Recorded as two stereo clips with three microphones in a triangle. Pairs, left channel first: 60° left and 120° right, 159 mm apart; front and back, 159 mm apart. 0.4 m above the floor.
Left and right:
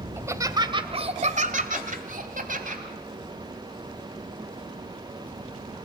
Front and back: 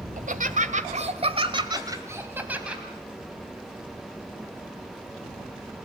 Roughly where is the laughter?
Behind.